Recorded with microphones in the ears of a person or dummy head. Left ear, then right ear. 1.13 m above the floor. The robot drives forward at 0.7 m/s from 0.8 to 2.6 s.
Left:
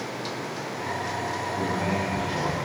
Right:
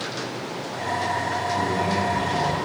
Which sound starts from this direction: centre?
A man speaking, at 1.6 s.